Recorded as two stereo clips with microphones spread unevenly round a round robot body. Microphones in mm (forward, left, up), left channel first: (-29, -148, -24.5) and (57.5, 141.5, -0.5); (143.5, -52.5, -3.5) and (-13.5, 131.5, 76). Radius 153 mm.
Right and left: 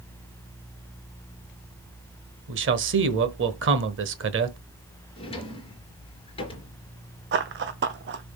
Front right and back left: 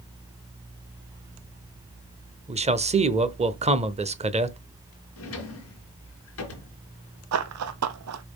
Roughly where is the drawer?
Ahead right.